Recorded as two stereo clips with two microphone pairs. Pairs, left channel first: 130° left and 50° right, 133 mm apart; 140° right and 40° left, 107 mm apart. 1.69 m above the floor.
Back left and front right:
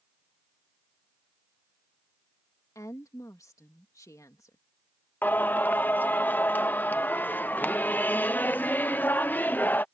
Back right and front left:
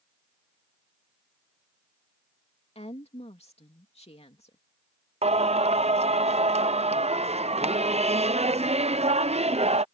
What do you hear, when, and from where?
2.8 s a woman speaking: 160° right
5.2 s singing: 55° left